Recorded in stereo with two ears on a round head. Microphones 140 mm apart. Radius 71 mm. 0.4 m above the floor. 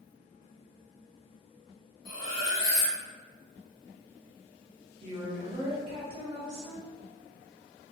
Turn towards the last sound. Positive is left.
turn(degrees=-30)  # may be behind; listen again after turning